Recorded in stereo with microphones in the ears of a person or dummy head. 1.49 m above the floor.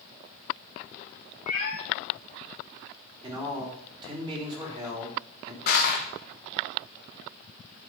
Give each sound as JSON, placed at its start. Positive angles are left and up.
{"t": 1.5, "sound": "a cat meowing", "side_deg": 35, "distance_m": 2.5}
{"t": 3.2, "sound": "a man speaking", "side_deg": -20, "distance_m": 3.5}
{"t": 5.7, "sound": "crushing", "side_deg": 45, "distance_m": 1.2}